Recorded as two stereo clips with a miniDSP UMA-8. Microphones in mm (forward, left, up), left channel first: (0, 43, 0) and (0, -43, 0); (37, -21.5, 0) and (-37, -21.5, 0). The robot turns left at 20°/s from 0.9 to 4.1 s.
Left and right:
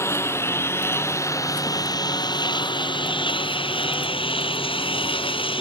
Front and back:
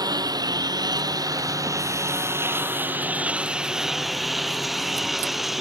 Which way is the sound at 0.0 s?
150° left.